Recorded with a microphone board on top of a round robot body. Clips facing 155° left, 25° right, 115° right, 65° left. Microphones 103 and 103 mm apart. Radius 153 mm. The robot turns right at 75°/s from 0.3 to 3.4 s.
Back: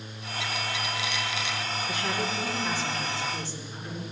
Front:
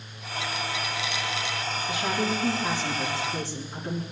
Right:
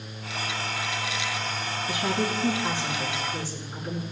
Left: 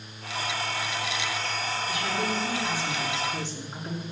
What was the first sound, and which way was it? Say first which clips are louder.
A woman speaking: front 5 dB, right 4 dB; 115° right.